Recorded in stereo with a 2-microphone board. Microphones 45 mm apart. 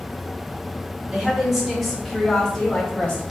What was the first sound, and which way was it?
A woman speaking, 10° right (ahead or behind).